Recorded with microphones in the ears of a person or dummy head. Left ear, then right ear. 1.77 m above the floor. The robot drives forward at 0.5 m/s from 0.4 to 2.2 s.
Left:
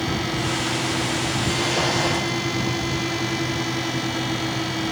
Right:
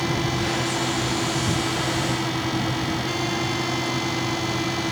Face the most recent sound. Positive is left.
No sound to turn to.